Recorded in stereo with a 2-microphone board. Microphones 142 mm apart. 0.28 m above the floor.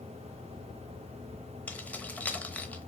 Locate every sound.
1.7 s keys jangling: 10° left (ahead or behind), 0.6 m